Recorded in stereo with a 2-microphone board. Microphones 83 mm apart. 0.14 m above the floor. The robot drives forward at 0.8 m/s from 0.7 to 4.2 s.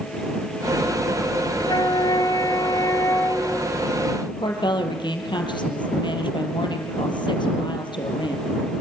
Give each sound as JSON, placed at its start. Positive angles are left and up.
{"t": 1.6, "sound": "a flute", "side_deg": 60, "distance_m": 1.2}
{"t": 4.3, "sound": "a woman speaking", "side_deg": 70, "distance_m": 4.5}